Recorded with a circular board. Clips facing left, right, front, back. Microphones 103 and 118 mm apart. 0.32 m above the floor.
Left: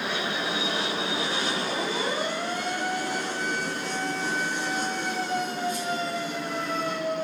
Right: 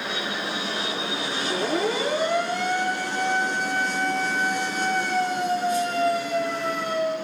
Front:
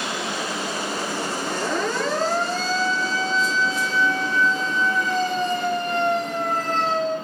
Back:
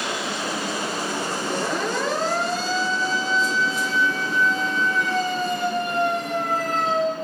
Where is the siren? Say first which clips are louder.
Right 5 dB, even; 100° right, 7.5 m.